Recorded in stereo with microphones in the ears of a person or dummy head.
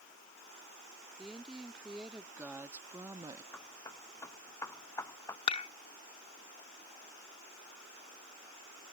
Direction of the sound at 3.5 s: 20° left (ahead or behind).